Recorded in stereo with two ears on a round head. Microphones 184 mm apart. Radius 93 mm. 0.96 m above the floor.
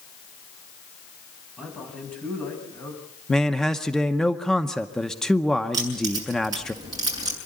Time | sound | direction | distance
1.6 | a man speaking | 5° left (ahead or behind) | 7 m
3.3 | a man speaking | 5° left (ahead or behind) | 0.8 m
5.7 | keys jangling | 20° right (ahead or behind) | 7 m